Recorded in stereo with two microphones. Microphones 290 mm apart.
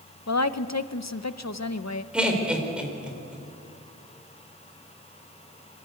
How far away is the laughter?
About 4 m.